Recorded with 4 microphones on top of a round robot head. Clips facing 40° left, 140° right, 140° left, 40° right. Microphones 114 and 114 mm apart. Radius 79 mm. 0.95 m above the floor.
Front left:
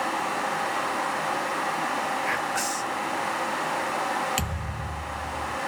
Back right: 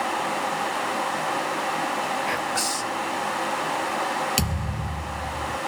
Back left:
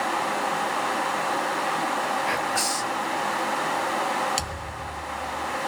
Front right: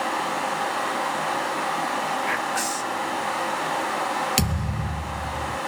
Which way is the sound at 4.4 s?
75° right.